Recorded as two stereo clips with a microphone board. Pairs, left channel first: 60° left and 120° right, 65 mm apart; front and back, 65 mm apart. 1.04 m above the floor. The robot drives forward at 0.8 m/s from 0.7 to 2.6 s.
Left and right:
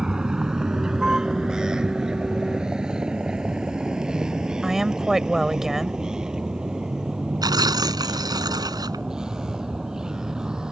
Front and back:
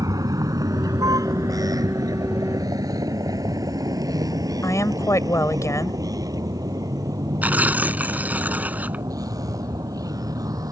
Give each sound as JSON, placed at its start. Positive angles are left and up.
{"t": 0.0, "sound": "a vehicle", "azimuth_deg": 160}
{"t": 4.6, "sound": "a woman speaking", "azimuth_deg": -35}
{"t": 7.4, "sound": "tearing paper", "azimuth_deg": -115}